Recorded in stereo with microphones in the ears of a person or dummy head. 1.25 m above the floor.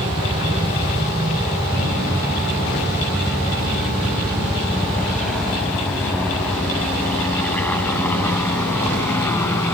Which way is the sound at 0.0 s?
30° right (ahead or behind).